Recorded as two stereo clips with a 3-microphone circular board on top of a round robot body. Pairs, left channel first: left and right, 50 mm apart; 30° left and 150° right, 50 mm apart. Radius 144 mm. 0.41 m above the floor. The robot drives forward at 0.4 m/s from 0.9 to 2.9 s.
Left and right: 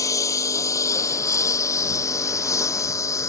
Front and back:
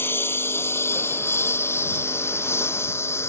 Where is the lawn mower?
80° left; by 3.3 s 70° left.